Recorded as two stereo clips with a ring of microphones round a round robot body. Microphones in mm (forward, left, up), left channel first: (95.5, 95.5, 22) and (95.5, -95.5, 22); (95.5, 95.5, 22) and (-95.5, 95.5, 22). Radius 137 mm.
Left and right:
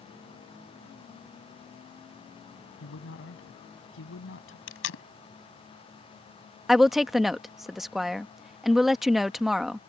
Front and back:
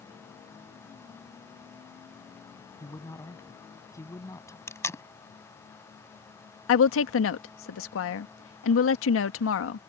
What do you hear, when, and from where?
2.8 s a man speaking: 75° left
4.7 s tape being pulled: 75° left
6.7 s a woman speaking: straight ahead